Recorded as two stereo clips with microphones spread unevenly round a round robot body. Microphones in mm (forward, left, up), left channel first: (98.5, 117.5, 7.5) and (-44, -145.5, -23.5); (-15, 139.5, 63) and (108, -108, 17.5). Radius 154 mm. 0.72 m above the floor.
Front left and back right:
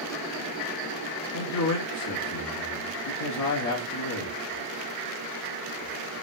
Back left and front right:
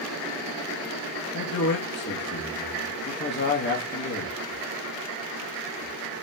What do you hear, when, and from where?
1.3 s a man speaking: 70° left, 1.2 m